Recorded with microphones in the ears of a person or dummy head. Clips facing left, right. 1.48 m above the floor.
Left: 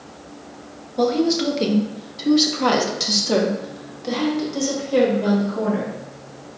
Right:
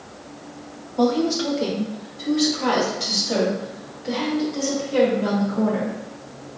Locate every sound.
1.0 s a woman speaking: 25° left (ahead or behind), 1.1 m; by 6.0 s 60° left (ahead or behind), 2 m